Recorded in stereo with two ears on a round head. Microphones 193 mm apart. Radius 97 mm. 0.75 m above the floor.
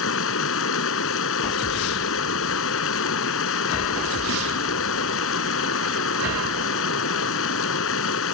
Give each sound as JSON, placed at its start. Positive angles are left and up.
{"t": 0.0, "sound": "running water", "side_deg": 70}